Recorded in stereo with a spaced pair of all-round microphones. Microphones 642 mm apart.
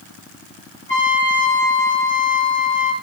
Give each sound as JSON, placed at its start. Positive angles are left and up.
{"t": 0.9, "sound": "a trumpet", "side_deg": 55, "distance_m": 6.0}